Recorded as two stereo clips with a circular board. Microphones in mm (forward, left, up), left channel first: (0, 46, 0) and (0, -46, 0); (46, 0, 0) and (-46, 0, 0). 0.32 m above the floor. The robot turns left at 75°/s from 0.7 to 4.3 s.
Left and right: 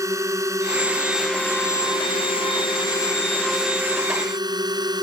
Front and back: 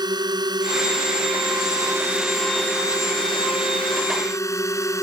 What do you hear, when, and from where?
0.0 s a drone: 145° right; by 5.0 s 55° right